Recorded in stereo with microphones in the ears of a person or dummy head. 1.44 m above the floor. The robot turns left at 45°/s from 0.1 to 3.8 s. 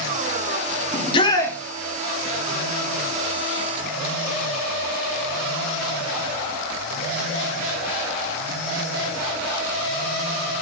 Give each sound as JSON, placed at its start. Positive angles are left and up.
{"t": 0.9, "sound": "a shout", "side_deg": 35, "distance_m": 1.0}